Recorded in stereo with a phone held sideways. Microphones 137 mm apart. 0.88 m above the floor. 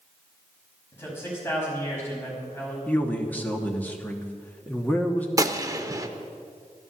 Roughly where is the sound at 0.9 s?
Centre.